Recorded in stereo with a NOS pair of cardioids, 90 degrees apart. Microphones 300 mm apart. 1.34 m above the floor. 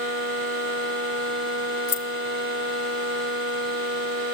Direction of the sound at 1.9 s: 60° left.